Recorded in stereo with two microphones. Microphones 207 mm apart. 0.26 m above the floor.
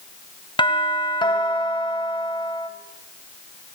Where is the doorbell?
25° left (ahead or behind), 1.8 m.